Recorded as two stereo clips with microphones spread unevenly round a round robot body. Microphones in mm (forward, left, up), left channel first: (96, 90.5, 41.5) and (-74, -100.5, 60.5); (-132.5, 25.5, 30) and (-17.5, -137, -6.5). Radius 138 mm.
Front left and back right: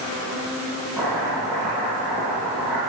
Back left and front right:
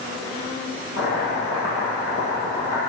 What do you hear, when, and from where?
1.0 s chopping: 140° left, 7 m